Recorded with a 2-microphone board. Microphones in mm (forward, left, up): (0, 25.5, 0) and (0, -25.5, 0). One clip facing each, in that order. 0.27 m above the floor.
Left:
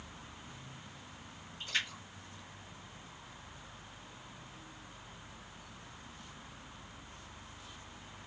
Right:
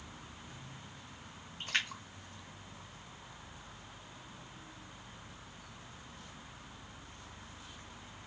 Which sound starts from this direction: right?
A splash, at 1.6 s.